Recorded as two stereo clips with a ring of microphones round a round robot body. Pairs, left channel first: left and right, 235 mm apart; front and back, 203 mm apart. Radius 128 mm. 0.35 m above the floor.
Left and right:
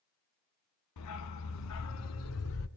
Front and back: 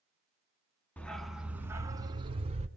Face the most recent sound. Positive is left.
turn(degrees=120)